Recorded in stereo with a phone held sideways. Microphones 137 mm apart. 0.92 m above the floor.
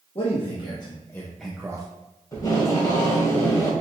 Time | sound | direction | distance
0.1 | a man speaking | 45° left (ahead or behind) | 1.1 m
2.3 | tape being pulled | 25° left (ahead or behind) | 1.5 m